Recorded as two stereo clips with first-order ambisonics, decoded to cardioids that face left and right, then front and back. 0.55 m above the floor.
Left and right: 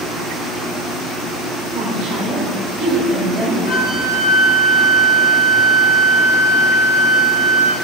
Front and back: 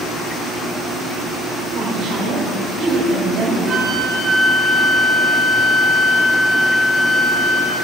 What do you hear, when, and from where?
1.7 s a woman speaking: 140° right, 1.8 m; by 3.6 s 170° right, 2.5 m
3.7 s a flute: 125° left, 1.8 m